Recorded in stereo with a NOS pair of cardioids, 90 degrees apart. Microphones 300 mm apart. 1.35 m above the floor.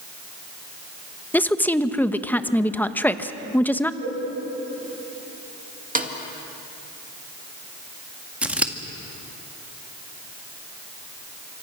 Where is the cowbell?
30° right, 6 m.